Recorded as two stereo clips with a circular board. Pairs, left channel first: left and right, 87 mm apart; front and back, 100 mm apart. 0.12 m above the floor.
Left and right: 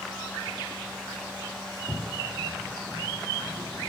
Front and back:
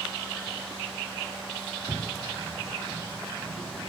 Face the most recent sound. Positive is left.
turn(degrees=60)